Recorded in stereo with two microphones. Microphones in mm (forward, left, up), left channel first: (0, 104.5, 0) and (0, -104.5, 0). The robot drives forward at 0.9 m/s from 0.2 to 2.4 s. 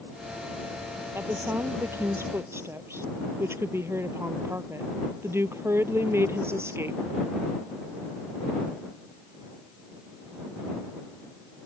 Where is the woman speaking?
10° right (ahead or behind).